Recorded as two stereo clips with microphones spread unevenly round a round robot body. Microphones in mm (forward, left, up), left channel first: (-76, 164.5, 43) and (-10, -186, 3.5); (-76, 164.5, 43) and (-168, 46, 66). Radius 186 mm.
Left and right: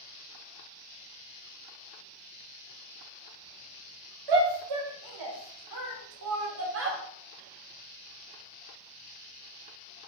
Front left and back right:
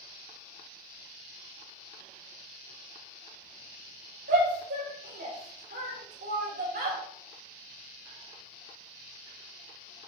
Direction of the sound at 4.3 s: 90° right.